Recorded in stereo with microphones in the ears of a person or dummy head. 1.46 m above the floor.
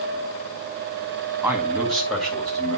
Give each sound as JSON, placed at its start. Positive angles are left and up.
{"t": 1.4, "sound": "a man speaking", "side_deg": -5, "distance_m": 1.9}